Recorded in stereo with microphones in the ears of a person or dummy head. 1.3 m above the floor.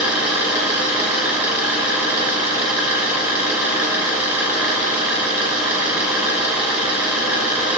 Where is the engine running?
Centre (ahead or behind), 4 m.